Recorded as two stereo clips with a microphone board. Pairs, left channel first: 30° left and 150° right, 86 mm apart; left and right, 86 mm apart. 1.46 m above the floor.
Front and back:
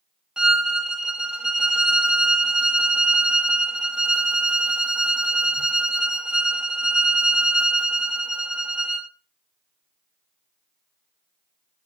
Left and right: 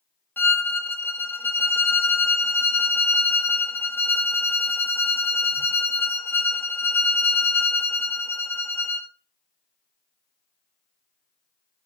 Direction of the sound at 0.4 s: 135° left.